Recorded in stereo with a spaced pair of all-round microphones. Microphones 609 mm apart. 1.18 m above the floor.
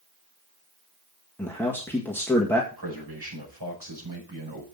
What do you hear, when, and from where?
1.4 s a man speaking: 5° left (ahead or behind), 1.7 m
2.7 s a man speaking: 40° right (ahead or behind), 5.5 m